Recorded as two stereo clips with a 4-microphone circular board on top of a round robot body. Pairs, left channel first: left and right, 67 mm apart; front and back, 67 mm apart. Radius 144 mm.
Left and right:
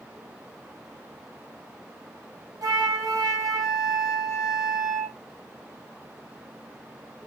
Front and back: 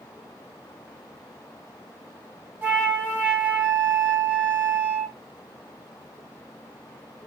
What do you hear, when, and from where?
2.6 s a flute: 120° right, 1.2 m